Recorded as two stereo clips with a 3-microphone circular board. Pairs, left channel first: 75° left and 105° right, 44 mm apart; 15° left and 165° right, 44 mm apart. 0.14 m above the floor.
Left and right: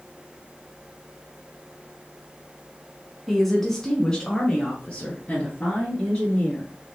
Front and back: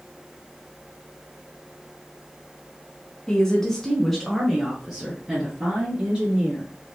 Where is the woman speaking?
15° right, 1.1 m; by 6.7 s 130° left, 2.5 m.